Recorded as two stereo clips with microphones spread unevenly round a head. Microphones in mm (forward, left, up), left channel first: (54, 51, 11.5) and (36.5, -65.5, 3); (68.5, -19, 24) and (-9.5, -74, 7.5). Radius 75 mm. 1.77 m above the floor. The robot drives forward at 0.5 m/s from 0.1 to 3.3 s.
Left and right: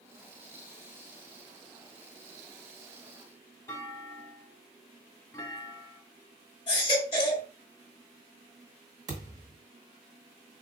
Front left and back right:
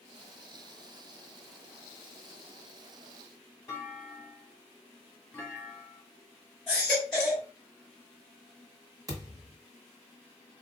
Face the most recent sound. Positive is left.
turn(degrees=-125)